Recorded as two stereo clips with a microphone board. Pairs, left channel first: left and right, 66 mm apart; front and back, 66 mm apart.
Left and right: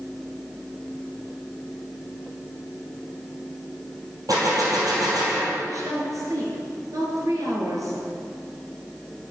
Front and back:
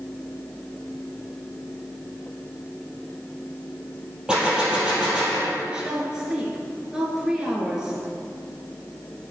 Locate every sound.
4.3 s a gunshot: 105° right, 3.5 m
5.7 s a woman speaking: 100° right, 2.5 m